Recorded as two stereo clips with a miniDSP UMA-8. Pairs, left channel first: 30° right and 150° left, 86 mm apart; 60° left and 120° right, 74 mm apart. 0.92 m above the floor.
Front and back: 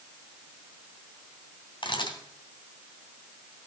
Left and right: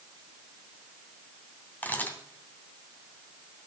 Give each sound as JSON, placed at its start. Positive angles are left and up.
{"t": 1.8, "sound": "a camera shutter", "azimuth_deg": -5, "distance_m": 2.5}